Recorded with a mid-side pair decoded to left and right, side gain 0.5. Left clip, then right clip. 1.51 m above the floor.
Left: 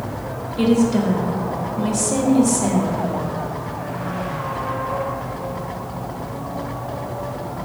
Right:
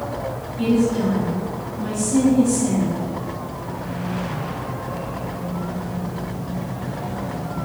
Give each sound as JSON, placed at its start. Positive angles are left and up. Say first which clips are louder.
{"t": 0.6, "sound": "a woman speaking", "louder": "left 2 dB", "azimuth_deg": 70, "distance_m": 2.5}